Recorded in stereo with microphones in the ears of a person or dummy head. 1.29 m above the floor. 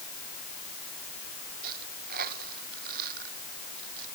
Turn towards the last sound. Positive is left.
turn(degrees=-55)  # may be behind; listen again after turning